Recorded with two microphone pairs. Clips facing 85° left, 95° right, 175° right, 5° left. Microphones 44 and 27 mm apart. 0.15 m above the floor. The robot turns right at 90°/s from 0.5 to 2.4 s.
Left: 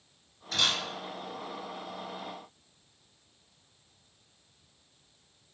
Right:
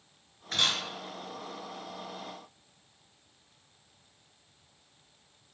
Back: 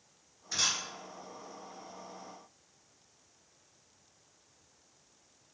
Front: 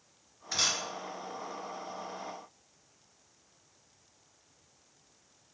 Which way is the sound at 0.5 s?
60° right.